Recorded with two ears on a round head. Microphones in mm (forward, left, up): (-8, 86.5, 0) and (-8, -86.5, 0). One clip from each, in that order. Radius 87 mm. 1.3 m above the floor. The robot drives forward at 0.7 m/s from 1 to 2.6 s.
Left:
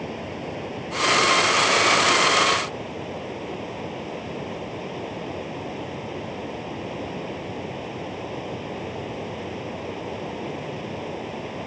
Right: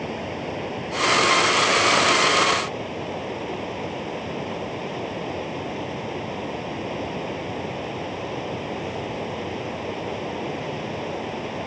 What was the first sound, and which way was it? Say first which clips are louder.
Running water: right 3 dB; 10° right (ahead or behind).